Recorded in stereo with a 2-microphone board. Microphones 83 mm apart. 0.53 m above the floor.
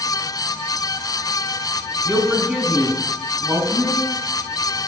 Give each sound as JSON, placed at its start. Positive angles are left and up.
{"t": 2.0, "sound": "a woman speaking", "side_deg": -10, "distance_m": 4.5}